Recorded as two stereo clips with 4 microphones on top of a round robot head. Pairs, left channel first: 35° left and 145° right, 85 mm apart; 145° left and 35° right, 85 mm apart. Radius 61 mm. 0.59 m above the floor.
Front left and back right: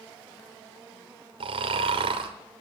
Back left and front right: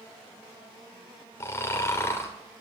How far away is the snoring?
About 1.3 m.